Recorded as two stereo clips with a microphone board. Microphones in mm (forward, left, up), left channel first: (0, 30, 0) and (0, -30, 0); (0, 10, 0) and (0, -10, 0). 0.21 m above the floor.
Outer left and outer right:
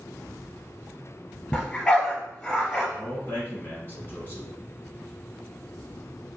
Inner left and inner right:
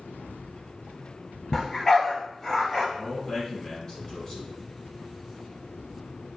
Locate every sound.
1.5 s a dog barking: 15° left (ahead or behind), 1.1 m
3.0 s a man speaking: 35° left (ahead or behind), 1.8 m